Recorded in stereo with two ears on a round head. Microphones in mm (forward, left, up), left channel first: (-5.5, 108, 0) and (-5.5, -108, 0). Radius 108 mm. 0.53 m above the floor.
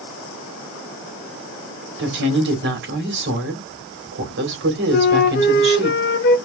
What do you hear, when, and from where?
2.0 s a woman speaking: 50° right (ahead or behind), 1.9 m
4.9 s a flute: 45° left (ahead or behind), 0.7 m